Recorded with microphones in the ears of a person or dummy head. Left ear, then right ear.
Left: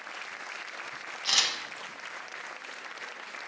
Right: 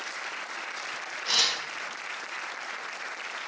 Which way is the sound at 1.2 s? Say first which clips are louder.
Right 1 dB; 75° left (ahead or behind).